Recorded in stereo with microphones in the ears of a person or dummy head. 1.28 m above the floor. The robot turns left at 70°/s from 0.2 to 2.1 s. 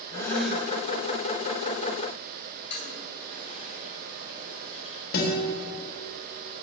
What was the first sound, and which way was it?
A gasp, 20° left.